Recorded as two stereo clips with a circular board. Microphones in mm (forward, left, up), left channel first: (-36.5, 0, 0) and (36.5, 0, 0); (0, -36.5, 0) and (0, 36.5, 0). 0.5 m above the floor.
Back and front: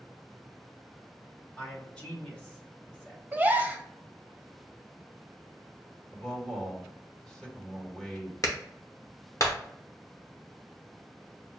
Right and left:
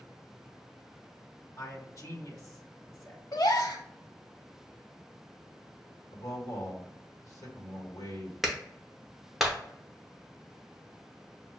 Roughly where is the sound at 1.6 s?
Right.